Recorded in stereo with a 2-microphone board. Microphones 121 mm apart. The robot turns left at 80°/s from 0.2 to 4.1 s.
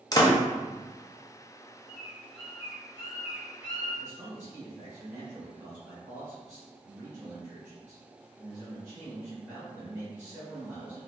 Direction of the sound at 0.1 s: 30° left (ahead or behind).